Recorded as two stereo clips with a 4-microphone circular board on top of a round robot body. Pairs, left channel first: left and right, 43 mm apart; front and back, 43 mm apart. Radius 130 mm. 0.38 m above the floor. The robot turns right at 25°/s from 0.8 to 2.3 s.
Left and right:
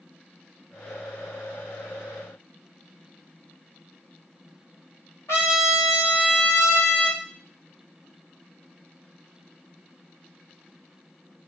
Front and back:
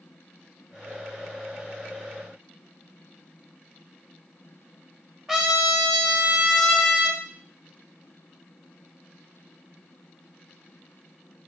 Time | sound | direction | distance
5.3 | a trumpet | 90° left | 1.5 m